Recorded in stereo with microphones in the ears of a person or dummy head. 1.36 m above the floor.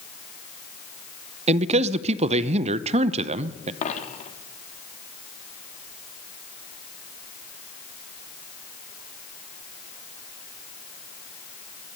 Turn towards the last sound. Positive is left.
turn(degrees=45)  # may be behind; listen again after turning